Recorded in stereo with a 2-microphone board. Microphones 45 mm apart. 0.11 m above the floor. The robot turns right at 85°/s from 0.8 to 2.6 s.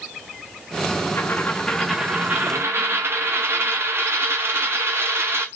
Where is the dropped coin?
120° left, 0.7 m; by 5.5 s 115° right, 0.7 m.